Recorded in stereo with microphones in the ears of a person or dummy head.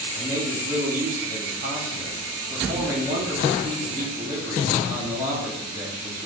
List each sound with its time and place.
0.1 s a man speaking: 20° right (ahead or behind), 1.3 m